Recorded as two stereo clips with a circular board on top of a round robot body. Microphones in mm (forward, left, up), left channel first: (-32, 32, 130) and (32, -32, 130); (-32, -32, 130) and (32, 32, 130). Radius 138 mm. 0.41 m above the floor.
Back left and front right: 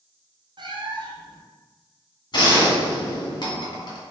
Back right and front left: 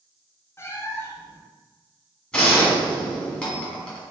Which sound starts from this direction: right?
A cat meowing, at 0.6 s.